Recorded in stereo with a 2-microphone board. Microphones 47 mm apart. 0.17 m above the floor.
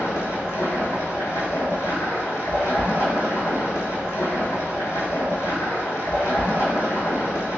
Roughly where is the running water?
Left.